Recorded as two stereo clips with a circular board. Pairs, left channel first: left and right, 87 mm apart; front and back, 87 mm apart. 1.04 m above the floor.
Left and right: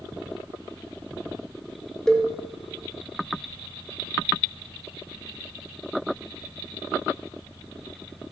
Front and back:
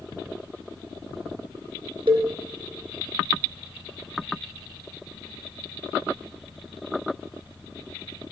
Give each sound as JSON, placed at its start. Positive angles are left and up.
{"t": 2.1, "sound": "a cowbell", "azimuth_deg": 175, "distance_m": 2.5}